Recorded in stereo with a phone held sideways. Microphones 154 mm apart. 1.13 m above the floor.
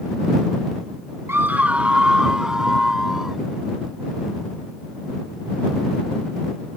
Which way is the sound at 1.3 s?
15° right (ahead or behind).